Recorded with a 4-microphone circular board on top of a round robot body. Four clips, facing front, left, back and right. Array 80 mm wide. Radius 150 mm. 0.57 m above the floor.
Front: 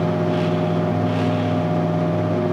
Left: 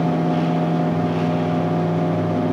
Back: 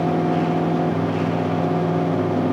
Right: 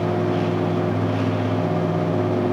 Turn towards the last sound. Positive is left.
No sound to turn to.